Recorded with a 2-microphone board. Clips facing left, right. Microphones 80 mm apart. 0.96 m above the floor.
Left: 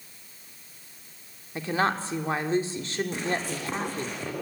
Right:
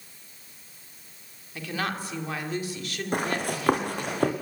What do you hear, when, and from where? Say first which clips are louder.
1.6 s a woman speaking: left 5 dB; 30° left (ahead or behind), 2.5 m
3.1 s running footsteps: right 2 dB; 55° right (ahead or behind), 3 m; by 4.3 s 60° right (ahead or behind), 3.5 m